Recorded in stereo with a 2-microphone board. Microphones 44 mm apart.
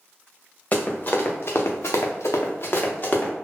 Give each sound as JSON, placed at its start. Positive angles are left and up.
{"t": 0.7, "sound": "running footsteps", "side_deg": 30, "distance_m": 1.6}